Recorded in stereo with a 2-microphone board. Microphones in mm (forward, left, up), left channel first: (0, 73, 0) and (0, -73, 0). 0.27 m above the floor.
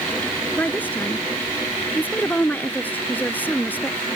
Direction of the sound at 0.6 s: 10° left (ahead or behind).